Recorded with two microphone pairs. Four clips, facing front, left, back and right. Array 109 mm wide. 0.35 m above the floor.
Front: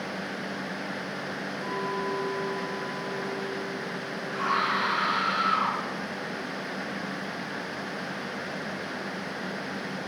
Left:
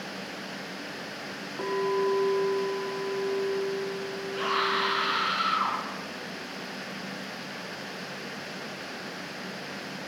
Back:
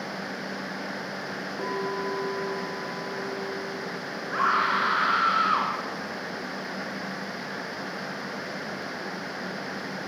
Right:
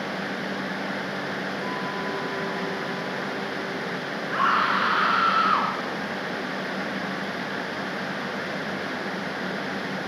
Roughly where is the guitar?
I don't hear a guitar.